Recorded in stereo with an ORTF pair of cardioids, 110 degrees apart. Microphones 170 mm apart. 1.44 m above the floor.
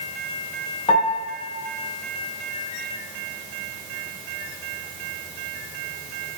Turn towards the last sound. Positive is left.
turn(degrees=45)